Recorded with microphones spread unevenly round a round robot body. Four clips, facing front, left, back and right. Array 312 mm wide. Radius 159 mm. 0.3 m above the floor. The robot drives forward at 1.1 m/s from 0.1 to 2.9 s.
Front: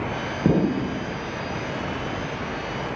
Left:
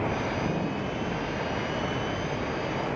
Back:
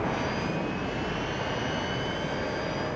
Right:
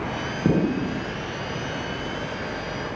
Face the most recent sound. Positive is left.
turn(degrees=-150)